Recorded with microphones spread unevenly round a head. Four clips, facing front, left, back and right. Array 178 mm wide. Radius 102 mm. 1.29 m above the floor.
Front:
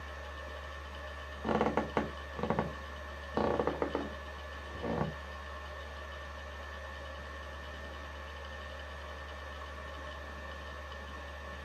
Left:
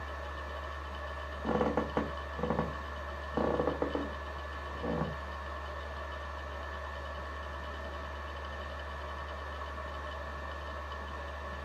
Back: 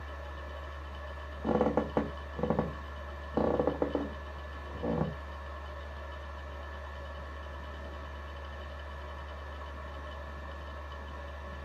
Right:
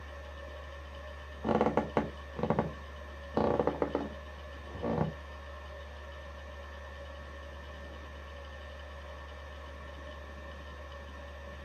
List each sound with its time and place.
0.0 s a machine running: 85° left, 0.8 m
1.4 s a squeak: 135° right, 0.6 m